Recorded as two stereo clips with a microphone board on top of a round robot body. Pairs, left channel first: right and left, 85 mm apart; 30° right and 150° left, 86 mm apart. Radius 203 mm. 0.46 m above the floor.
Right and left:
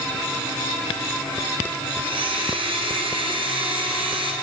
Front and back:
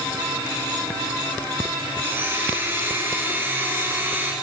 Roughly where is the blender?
Left.